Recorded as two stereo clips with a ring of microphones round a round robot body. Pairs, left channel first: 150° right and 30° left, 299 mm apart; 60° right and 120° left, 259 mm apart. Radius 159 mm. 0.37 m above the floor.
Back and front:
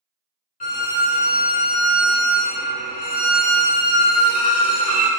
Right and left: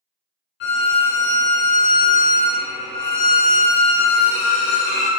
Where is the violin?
95° right, 0.9 m.